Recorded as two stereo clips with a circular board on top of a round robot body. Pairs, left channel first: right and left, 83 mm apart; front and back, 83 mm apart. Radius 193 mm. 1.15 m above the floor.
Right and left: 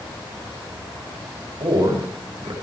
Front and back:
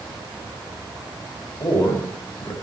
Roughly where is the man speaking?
Ahead left.